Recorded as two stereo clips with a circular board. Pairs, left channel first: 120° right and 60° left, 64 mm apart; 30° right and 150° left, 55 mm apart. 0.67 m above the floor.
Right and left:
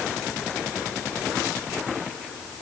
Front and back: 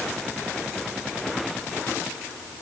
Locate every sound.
Only background noise.